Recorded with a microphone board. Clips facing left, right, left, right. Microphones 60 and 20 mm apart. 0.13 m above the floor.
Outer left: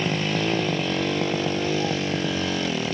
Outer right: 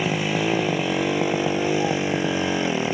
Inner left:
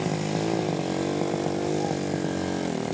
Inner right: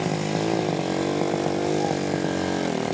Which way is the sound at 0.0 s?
10° right (ahead or behind).